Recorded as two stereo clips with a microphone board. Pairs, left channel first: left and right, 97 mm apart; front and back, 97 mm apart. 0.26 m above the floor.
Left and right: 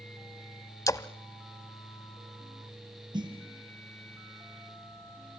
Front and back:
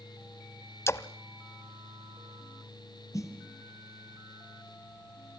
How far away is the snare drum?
About 4.5 m.